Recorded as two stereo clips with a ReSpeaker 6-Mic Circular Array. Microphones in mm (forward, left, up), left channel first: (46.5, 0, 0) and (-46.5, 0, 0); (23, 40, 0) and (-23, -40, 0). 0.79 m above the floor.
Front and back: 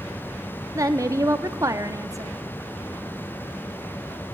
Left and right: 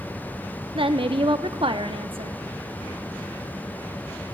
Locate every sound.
0.8 s a woman speaking: 130° right, 0.9 m